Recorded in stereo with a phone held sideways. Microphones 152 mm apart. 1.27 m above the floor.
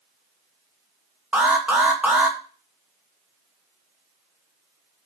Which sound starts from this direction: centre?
An alarm, at 1.3 s.